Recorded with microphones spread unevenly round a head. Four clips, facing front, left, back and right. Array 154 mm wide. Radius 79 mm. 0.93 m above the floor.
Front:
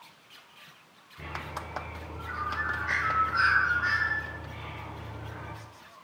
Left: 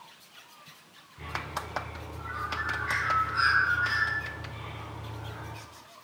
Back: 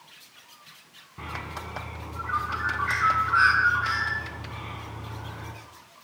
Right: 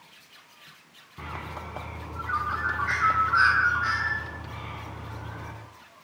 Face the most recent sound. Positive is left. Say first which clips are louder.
# left 1 dB, back 2 dB
turn(degrees=-140)